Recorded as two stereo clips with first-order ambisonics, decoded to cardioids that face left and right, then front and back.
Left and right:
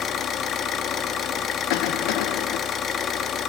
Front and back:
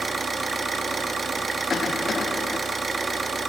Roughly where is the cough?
Left.